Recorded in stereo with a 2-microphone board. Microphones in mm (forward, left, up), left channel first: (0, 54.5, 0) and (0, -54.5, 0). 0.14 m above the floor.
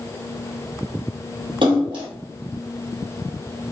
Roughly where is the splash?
Right.